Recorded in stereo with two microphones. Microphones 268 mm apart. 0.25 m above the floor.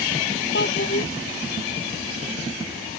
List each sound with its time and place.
0.5 s a child speaking: 45° left (ahead or behind)